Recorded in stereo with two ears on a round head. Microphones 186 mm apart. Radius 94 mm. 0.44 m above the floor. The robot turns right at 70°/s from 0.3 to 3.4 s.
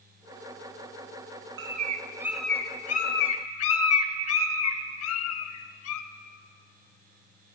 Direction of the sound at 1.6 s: 55° right (ahead or behind).